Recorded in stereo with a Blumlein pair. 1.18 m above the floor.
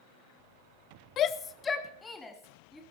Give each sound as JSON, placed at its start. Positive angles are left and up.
{"t": 1.2, "sound": "a shout", "azimuth_deg": 30, "distance_m": 0.6}